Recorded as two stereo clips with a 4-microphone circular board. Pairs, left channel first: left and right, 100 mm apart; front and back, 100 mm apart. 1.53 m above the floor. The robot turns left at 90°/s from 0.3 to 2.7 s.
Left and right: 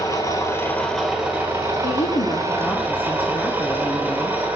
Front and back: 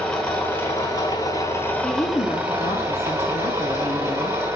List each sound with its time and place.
0.0 s an engine running: 75° left, 1.5 m; by 4.6 s 140° right, 1.5 m
1.8 s a woman speaking: 90° left, 0.7 m; by 4.6 s 10° left, 0.7 m